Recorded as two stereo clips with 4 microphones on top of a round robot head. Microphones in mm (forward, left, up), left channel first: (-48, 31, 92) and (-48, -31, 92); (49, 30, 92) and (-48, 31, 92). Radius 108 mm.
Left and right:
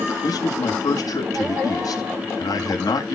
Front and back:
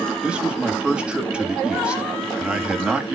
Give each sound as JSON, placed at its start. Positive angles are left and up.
{"t": 0.2, "sound": "a man speaking", "azimuth_deg": 100, "distance_m": 2.5}